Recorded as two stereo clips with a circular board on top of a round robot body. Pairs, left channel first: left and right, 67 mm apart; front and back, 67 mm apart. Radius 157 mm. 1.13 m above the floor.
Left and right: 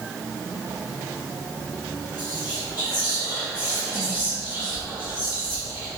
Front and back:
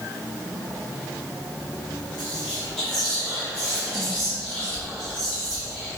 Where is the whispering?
80° left, 1.4 m.